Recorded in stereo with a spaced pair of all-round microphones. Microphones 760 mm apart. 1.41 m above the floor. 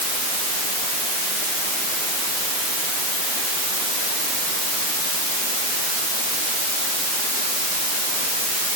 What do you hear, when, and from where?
Only background noise.